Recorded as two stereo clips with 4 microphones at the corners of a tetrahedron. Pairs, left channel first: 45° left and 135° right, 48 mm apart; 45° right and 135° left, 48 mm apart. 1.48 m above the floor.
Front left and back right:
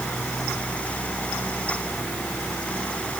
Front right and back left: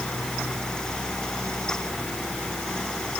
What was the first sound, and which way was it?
Only background noise.